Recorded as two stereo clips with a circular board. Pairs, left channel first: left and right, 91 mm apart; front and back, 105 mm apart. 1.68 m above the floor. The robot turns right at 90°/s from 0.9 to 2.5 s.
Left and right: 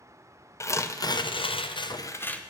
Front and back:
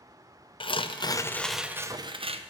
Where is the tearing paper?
35° left, 0.6 m; by 2.4 s 170° left, 0.6 m.